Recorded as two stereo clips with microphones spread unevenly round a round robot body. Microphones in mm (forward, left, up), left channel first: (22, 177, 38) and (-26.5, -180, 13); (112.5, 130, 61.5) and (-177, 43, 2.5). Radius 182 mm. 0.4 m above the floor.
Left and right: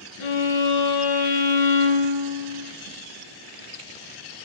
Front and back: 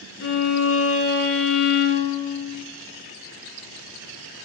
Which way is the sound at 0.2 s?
65° left.